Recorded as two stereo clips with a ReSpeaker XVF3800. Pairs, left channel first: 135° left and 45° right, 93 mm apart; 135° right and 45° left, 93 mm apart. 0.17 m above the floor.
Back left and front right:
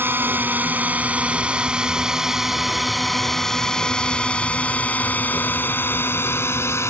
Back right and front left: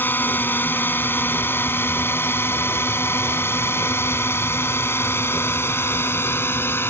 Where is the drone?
85° right; by 6.9 s 175° left.